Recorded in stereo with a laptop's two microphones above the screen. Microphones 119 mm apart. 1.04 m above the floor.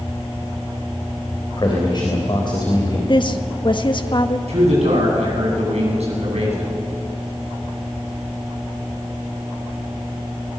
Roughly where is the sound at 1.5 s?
Left.